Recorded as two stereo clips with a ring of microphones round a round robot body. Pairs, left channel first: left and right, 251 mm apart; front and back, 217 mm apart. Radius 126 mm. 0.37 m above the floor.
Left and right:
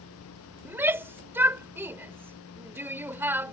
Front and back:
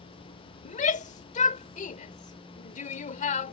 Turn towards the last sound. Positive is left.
turn(degrees=-15)